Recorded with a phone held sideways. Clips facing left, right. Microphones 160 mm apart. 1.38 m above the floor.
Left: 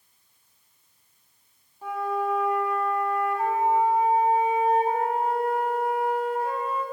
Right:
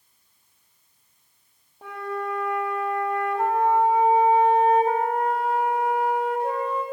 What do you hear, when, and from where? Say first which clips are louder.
1.8 s a flute: left 3 dB; 75° right (ahead or behind), 4 m